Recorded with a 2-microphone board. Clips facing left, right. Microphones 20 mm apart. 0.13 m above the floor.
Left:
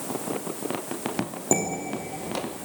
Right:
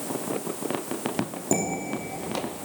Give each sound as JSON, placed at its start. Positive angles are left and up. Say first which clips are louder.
{"t": 1.5, "sound": "dishes clattering", "louder": "left 1 dB", "side_deg": 25, "distance_m": 3.0}